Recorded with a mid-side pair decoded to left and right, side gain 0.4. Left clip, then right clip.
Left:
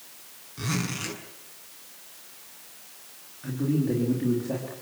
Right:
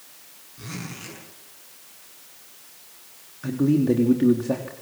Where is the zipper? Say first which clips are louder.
Left 6 dB; 60° left, 7 m.